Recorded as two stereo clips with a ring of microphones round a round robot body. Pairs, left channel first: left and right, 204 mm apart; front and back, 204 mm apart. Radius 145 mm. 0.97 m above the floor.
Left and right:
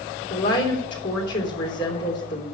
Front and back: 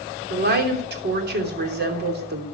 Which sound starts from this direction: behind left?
A woman speaking, at 0.3 s.